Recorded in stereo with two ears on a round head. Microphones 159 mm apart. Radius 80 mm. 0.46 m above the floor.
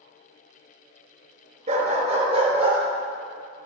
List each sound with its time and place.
1.7 s a dog barking: 40° right (ahead or behind), 2.0 m; by 2.8 s 30° right (ahead or behind), 2.5 m